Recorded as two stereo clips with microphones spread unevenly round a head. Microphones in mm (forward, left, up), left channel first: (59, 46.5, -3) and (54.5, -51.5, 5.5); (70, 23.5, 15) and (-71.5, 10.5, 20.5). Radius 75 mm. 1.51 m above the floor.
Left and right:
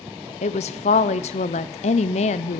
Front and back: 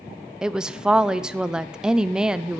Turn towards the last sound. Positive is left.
turn(degrees=100)